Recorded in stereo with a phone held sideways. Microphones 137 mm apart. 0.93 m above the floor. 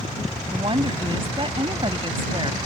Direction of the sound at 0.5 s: 40° right (ahead or behind).